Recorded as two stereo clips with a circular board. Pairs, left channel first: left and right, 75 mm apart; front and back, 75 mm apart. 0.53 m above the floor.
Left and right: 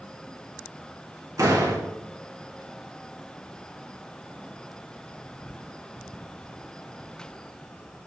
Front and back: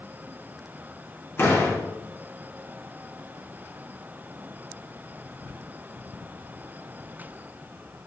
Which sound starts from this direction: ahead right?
A door slam, at 1.4 s.